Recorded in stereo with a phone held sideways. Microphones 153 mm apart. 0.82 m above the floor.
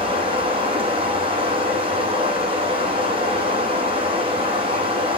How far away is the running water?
About 5 m.